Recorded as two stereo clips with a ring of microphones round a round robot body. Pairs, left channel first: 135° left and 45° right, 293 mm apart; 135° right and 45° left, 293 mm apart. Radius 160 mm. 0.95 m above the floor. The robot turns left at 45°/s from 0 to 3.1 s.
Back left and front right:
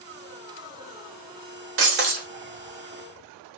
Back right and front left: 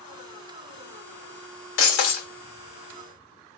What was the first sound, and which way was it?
Breaking glass, 90° right.